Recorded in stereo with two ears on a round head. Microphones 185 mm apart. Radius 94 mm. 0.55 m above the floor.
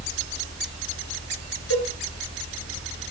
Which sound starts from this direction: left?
A cowbell, at 1.7 s.